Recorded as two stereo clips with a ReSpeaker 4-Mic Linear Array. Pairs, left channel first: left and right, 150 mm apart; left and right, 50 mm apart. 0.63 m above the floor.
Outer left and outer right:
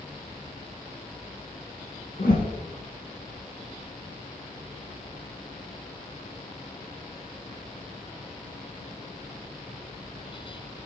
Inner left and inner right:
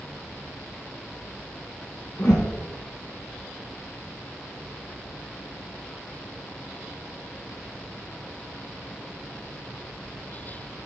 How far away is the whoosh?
About 1.8 m.